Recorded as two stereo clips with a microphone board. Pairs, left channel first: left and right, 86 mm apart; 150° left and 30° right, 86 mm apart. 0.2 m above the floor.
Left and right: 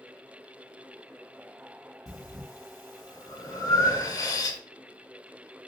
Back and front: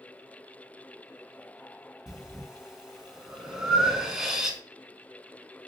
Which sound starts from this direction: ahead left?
Breathing, at 2.1 s.